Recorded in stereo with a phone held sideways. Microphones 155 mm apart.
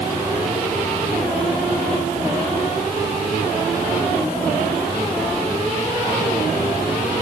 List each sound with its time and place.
Only background noise.